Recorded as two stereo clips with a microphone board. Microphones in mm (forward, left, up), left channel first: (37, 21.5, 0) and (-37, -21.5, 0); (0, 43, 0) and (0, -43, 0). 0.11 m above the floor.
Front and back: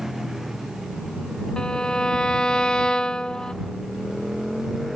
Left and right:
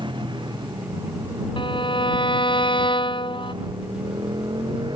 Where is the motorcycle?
65° right; by 5.0 s 60° right.